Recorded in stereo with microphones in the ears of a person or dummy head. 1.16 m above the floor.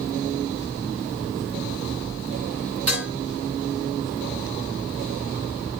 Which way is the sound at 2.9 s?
10° right (ahead or behind).